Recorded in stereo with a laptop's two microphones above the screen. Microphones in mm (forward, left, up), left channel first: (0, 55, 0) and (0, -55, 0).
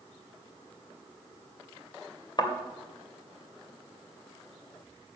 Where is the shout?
I don't hear a shout.